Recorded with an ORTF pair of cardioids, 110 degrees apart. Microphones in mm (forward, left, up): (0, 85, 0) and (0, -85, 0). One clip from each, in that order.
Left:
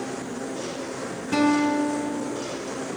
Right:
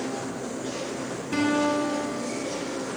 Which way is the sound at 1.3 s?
20° left.